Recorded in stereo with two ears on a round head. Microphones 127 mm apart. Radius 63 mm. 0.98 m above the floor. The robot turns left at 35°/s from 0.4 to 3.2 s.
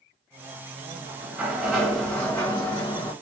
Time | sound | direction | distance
0.9 | a sliding door | 150° right | 1.5 m